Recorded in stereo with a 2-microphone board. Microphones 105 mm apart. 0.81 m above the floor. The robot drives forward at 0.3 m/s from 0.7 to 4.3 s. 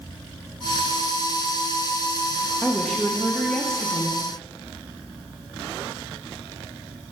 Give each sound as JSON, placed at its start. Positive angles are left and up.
{"t": 2.6, "sound": "a woman speaking", "side_deg": 5, "distance_m": 0.5}